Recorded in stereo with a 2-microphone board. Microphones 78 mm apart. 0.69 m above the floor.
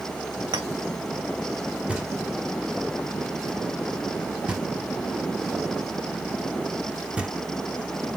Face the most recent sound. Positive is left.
turn(degrees=-15)  # may be behind; listen again after turning